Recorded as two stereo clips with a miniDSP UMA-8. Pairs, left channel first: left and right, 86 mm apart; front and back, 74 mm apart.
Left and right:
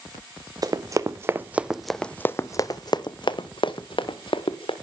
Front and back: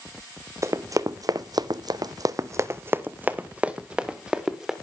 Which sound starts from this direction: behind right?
Running footsteps, at 0.6 s.